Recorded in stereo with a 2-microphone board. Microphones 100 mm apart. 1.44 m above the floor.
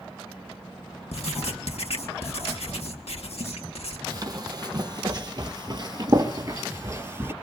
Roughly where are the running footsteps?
Right.